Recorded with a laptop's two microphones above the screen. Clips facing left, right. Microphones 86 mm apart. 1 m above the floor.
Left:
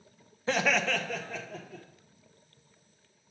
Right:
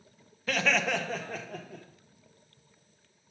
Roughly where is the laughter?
Left.